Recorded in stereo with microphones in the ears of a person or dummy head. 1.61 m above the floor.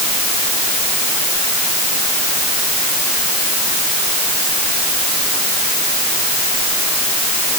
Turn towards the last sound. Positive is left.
No sound to turn to.